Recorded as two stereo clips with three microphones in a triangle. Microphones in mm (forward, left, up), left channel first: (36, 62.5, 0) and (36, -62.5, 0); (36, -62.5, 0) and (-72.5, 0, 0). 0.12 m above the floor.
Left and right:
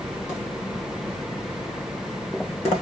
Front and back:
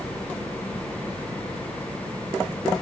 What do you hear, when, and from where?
Only background noise.